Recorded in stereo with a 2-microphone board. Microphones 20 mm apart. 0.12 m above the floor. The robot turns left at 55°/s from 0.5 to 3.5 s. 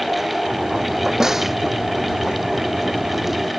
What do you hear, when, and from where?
1.2 s a snare drum: 30° right (ahead or behind); by 1.6 s 10° right (ahead or behind)